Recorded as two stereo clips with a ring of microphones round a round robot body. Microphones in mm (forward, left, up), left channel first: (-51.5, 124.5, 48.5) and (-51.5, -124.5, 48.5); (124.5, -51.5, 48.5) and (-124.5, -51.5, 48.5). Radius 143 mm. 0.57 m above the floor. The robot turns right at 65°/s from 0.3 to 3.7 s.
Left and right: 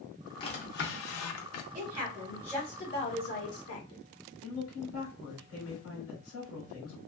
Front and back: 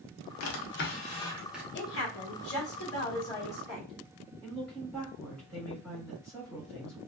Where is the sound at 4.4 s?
85° left, 1.8 m.